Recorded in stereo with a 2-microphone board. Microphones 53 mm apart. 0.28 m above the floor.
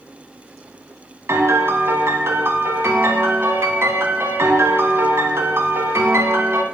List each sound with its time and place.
1.3 s a piano: 60° right (ahead or behind), 1.9 m